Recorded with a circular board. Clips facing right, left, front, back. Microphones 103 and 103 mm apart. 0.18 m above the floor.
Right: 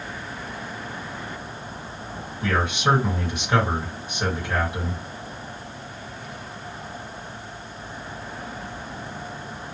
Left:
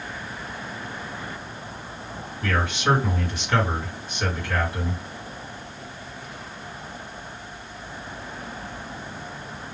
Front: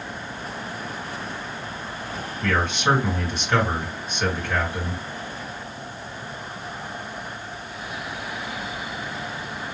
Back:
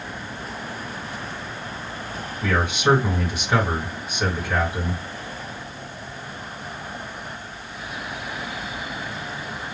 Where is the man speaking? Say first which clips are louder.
Right 1 dB, back 1 dB; 125° right, 1.7 m.